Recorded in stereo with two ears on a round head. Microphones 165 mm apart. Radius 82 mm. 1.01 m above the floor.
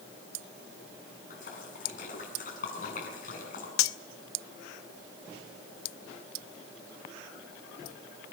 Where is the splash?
50° left (ahead or behind), 7.5 m.